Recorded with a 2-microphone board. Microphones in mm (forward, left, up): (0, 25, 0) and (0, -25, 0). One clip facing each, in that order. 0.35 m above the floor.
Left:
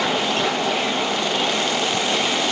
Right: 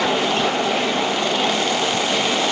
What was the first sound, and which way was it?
Only background noise.